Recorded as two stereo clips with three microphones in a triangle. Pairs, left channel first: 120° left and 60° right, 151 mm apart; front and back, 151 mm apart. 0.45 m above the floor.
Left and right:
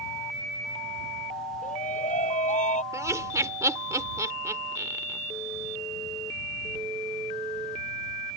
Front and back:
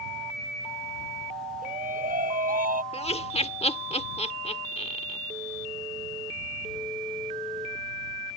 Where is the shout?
155° left; by 2.8 s 160° left.